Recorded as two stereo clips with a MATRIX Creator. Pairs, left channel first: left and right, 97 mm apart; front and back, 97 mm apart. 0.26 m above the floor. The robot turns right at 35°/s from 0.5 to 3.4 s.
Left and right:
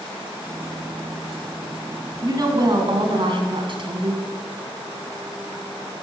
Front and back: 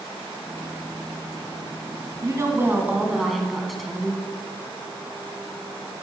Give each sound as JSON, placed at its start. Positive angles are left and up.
{"t": 2.2, "sound": "a woman speaking", "azimuth_deg": -130, "distance_m": 1.9}